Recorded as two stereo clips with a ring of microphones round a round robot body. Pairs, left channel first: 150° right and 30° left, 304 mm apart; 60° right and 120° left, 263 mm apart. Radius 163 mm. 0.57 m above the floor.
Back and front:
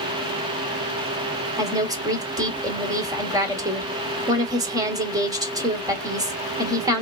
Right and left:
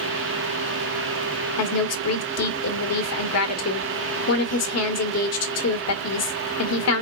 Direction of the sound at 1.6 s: 45° right.